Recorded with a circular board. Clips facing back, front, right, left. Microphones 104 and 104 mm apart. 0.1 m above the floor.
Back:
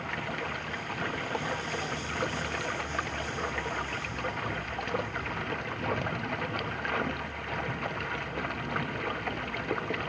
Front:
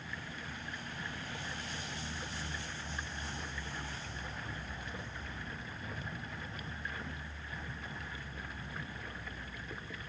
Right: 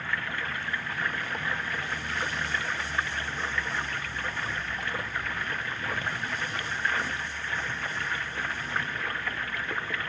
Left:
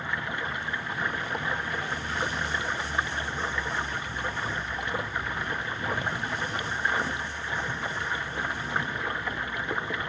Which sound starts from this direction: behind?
Running water, at 0.0 s.